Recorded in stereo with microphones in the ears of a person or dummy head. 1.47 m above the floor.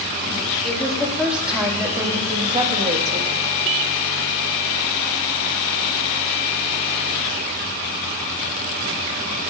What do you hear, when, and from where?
0.6 s a woman speaking: 5° left (ahead or behind), 4 m; by 3.4 s 45° right (ahead or behind), 3 m